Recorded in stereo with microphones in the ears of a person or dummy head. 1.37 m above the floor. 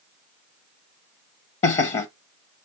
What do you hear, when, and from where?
1.6 s laughter: 35° left (ahead or behind), 0.7 m